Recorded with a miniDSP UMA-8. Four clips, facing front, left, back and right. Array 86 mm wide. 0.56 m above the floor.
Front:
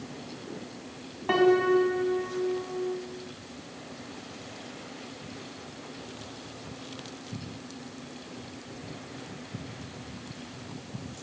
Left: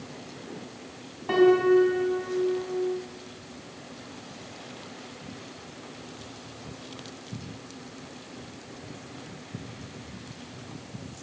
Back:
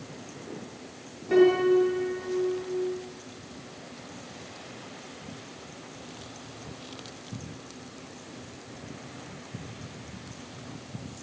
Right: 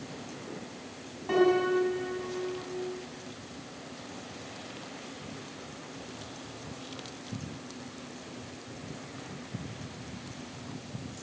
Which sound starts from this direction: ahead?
A piano, at 1.3 s.